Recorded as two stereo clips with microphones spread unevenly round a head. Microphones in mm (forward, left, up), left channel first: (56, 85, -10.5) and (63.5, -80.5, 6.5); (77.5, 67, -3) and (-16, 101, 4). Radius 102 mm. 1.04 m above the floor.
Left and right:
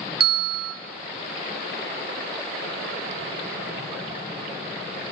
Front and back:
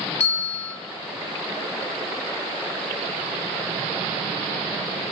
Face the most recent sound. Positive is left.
turn(degrees=-60)